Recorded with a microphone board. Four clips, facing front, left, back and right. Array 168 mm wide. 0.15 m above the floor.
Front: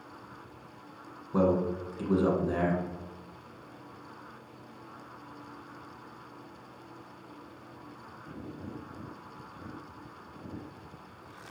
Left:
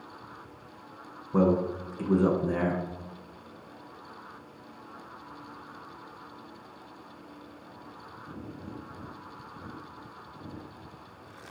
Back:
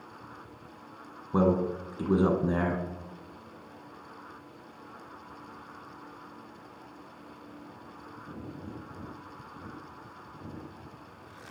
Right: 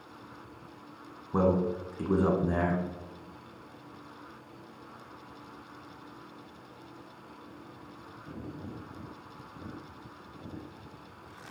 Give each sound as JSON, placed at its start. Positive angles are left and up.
{"t": 1.3, "sound": "a man speaking", "azimuth_deg": -160, "distance_m": 1.4}